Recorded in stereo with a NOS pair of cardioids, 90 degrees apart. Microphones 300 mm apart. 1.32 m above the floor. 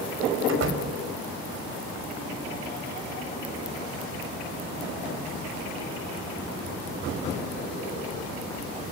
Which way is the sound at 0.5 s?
55° right.